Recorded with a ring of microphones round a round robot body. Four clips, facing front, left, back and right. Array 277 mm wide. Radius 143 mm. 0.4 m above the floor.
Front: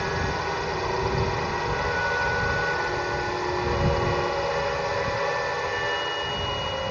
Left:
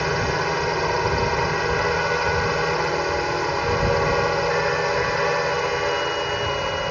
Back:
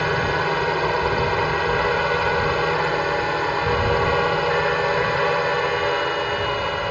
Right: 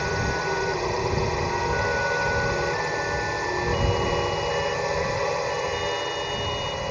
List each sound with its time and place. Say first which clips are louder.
0.0 s a drone: left 3 dB, back 6 dB; 150° left